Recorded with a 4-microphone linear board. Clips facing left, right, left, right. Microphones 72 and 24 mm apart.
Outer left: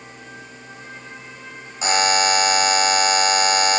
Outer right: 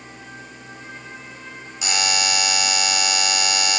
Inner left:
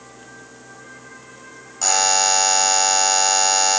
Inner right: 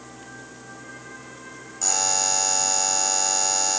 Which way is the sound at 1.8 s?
35° left (ahead or behind).